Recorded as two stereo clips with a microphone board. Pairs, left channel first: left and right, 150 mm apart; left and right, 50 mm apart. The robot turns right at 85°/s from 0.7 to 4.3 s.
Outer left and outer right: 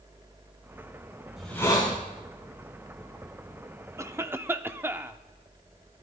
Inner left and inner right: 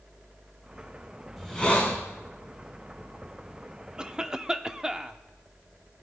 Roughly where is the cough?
Centre.